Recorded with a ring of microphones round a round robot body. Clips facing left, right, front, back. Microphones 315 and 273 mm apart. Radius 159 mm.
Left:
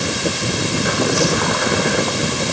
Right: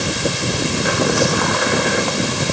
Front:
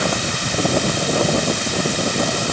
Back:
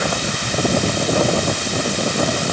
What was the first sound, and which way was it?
Only background noise.